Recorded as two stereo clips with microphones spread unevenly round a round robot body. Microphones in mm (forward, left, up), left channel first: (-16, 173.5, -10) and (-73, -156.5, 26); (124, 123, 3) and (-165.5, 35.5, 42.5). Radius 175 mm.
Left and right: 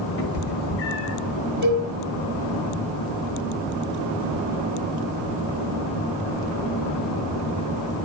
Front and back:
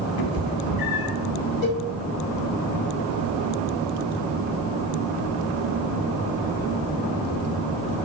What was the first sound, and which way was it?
A cat meowing, 25° left.